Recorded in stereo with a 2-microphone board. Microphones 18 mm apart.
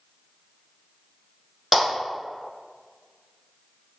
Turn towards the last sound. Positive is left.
turn(degrees=-5)  # may be behind; listen again after turning